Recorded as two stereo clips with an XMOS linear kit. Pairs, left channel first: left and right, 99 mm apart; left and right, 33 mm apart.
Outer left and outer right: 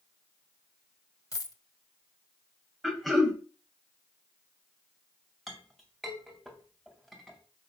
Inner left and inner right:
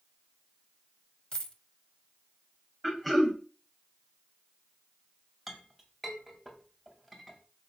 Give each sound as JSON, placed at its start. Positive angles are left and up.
{"t": 1.3, "sound": "a dropped coin", "side_deg": 35, "distance_m": 0.9}
{"t": 2.8, "sound": "throat clearing", "side_deg": 0, "distance_m": 1.9}
{"t": 5.5, "sound": "a clink", "side_deg": 0, "distance_m": 2.5}